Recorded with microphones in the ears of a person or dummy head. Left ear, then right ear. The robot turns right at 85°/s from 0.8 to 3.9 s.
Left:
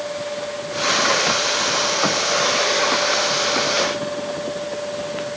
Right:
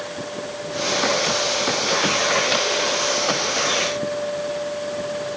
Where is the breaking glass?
I don't hear breaking glass.